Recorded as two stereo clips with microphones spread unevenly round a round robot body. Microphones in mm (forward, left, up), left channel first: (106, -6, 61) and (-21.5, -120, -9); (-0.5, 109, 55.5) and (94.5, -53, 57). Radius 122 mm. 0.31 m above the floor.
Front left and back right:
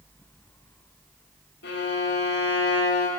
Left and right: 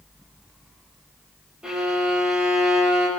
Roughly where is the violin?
Ahead left.